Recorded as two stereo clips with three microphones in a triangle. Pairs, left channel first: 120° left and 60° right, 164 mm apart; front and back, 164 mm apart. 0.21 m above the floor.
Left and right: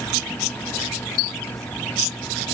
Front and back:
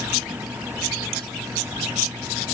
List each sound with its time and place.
Only background noise.